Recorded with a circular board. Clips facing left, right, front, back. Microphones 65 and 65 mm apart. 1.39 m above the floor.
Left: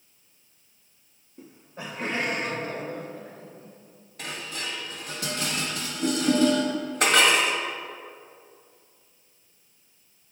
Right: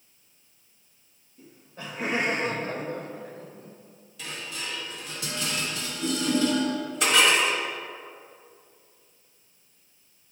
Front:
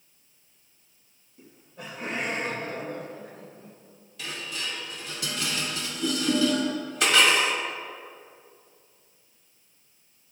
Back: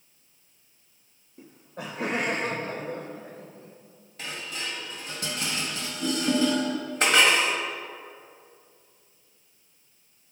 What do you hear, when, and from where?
1.4 s laughter: 130° left, 0.6 m; by 3.8 s 120° right, 1.7 m
4.2 s dishes clattering: 130° left, 1.3 m